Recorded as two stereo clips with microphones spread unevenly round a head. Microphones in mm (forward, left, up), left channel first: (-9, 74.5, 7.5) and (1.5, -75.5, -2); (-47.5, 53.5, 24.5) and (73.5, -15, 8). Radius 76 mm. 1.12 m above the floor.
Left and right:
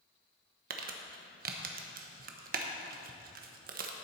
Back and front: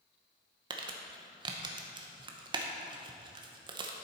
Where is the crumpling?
80° right, 0.9 m.